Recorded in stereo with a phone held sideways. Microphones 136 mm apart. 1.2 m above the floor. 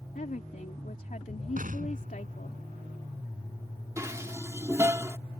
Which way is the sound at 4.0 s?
20° right (ahead or behind).